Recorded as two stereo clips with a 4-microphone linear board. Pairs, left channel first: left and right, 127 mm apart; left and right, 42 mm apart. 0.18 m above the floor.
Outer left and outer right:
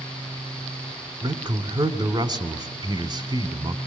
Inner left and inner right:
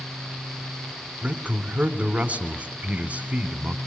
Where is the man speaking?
35° right (ahead or behind), 1.3 m.